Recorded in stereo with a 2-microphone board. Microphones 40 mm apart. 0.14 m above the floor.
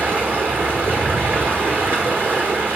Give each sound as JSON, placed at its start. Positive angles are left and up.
{"t": 0.0, "sound": "running water", "side_deg": -50, "distance_m": 1.7}